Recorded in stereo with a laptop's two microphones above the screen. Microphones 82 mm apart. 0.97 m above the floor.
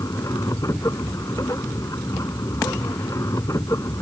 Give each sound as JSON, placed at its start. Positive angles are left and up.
{"t": 0.0, "sound": "a machine running", "side_deg": 40}